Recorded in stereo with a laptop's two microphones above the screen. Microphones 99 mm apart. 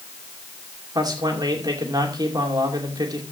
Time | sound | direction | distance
0.9 | a man speaking | 45° right (ahead or behind) | 2.5 m